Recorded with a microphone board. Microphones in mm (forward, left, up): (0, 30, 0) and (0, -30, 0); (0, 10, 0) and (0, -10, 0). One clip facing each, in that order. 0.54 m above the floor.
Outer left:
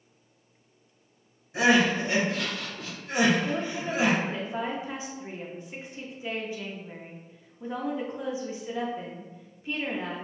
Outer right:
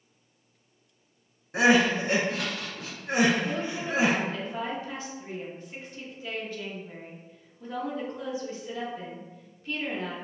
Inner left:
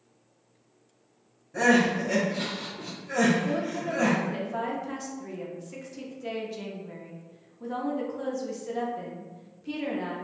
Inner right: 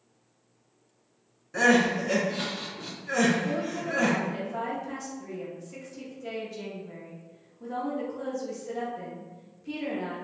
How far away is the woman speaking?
About 0.6 m.